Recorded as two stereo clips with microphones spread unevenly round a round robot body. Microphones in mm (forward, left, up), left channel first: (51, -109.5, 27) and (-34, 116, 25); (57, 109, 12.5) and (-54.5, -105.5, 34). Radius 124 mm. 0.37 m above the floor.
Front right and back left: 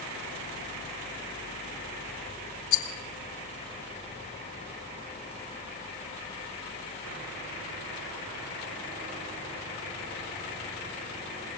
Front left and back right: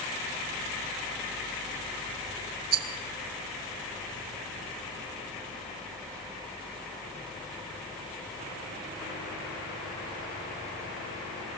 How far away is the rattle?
About 2 m.